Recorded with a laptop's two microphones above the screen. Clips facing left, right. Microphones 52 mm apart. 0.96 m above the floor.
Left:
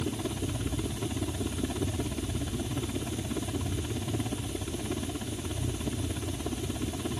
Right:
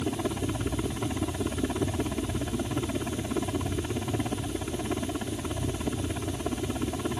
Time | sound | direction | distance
0.0 | a helicopter | 30° right (ahead or behind) | ?